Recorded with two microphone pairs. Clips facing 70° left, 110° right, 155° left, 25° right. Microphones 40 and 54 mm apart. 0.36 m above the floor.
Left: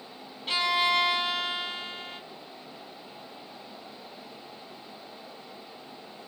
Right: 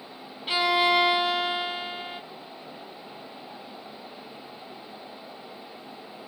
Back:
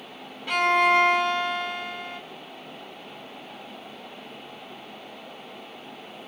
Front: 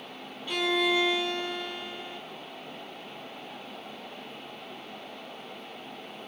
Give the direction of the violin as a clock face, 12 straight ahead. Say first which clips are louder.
Right 3 dB, back 7 dB; 6 o'clock.